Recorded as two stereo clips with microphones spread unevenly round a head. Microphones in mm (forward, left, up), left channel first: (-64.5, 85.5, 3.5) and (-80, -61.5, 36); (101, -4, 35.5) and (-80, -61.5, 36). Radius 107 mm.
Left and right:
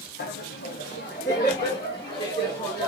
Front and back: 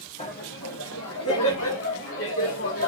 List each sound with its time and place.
0.2 s laughter: 80° left, 0.7 m; by 2.9 s 10° left, 2.5 m